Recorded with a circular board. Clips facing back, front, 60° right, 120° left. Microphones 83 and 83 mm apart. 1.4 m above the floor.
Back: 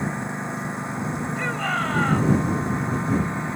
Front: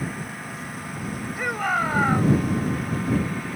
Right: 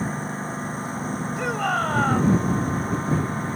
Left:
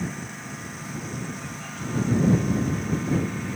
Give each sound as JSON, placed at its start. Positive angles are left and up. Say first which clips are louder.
{"t": 0.0, "sound": "a lawn mower", "louder": "back 4 dB, right 6 dB", "azimuth_deg": -115}
{"t": 1.4, "sound": "a shout", "louder": "front 3 dB, right 12 dB", "azimuth_deg": -75}